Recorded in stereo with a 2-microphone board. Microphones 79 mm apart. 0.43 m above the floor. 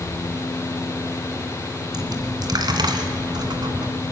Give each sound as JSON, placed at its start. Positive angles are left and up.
{"t": 1.9, "sound": "a dropped coin", "side_deg": -65, "distance_m": 1.9}